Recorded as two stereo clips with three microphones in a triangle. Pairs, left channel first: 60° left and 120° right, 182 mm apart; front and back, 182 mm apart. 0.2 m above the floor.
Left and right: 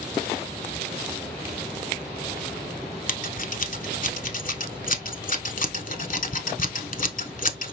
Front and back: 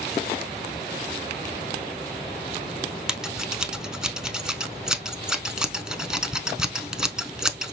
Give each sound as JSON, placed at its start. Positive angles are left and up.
{"t": 3.1, "sound": "scissors", "azimuth_deg": 95, "distance_m": 0.6}